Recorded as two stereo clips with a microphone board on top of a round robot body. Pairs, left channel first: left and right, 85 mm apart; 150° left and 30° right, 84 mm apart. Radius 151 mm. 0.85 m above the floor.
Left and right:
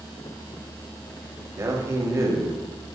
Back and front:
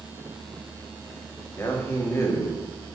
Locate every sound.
1.6 s a man speaking: 145° right, 1.6 m